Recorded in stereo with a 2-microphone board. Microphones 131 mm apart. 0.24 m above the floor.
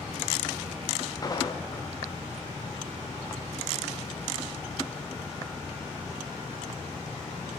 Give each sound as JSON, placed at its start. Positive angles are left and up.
{"t": 1.2, "sound": "footsteps", "side_deg": 30, "distance_m": 1.6}